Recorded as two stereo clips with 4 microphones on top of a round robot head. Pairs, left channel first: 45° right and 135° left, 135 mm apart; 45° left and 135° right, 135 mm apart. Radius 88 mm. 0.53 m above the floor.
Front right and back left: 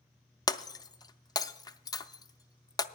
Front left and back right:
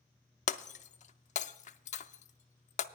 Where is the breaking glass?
15° left, 0.5 m.